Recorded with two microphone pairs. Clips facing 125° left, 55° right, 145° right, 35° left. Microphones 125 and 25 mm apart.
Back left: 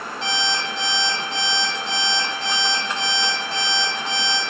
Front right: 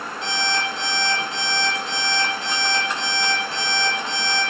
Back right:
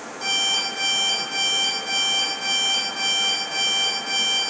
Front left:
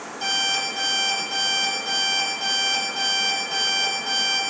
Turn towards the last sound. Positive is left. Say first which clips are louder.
# front right 1 dB, back right 1 dB
turn(degrees=110)